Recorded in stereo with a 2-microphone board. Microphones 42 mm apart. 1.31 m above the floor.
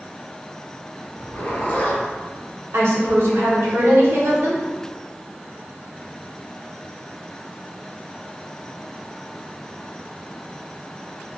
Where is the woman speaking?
75° right (ahead or behind), 1.1 m.